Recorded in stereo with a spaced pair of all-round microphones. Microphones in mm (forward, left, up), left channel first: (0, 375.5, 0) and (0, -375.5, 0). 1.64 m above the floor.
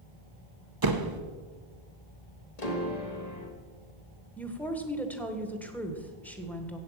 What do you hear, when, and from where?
0.8 s a door slam: 30° right (ahead or behind), 0.9 m
2.6 s a piano: 60° left (ahead or behind), 1.8 m
4.4 s a woman speaking: centre (ahead or behind), 1.6 m